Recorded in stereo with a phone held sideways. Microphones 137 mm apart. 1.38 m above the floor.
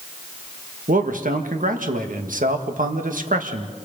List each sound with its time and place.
0.9 s a man speaking: 75° right (ahead or behind), 1.5 m